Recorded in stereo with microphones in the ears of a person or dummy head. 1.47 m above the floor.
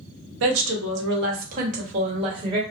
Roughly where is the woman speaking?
Right.